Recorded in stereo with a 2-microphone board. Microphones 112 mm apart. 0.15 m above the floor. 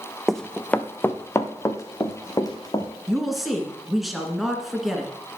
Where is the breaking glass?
No breaking glass in this recording.